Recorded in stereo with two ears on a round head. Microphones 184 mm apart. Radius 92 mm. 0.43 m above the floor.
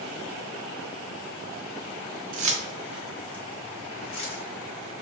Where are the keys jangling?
40° right (ahead or behind), 0.6 m; by 4.4 s 30° left (ahead or behind), 1.4 m.